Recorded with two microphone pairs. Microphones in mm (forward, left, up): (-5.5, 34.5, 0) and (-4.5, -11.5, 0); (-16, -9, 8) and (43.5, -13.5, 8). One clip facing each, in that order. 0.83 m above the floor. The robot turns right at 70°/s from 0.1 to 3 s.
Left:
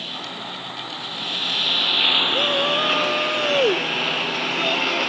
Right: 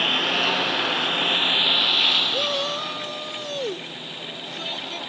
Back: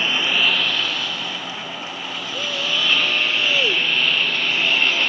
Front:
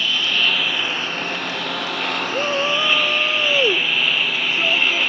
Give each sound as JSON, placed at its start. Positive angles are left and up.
{"t": 0.0, "sound": "a lawn mower", "azimuth_deg": -125}
{"t": 2.3, "sound": "a shout", "azimuth_deg": 0}